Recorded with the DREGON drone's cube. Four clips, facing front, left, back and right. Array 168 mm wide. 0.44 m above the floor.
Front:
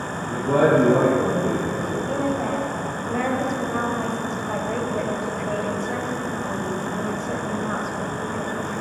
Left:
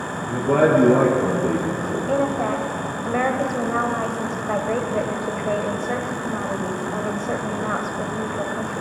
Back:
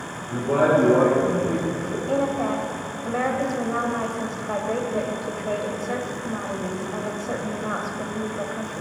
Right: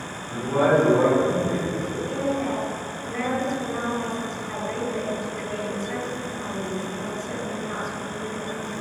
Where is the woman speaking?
105° left, 2.5 m.